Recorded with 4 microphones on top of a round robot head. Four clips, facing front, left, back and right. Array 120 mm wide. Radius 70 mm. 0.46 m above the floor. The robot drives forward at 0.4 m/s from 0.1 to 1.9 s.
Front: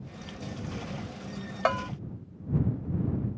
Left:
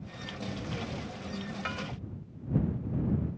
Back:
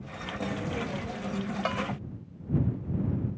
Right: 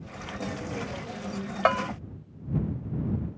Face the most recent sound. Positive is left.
turn(degrees=-75)